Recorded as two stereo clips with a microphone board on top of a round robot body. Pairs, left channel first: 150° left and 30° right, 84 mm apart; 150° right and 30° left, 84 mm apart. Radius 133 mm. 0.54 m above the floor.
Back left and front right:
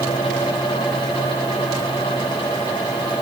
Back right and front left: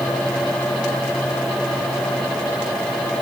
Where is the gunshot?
No gunshot in this recording.